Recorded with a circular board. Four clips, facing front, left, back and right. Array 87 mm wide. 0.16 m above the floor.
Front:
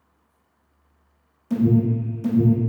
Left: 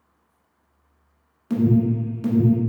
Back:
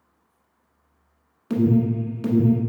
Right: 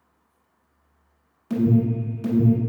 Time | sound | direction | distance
1.5 | an alarm | 165° left | 1.2 m